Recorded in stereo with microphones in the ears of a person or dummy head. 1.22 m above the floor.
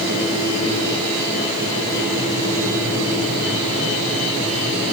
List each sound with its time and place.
Only background noise.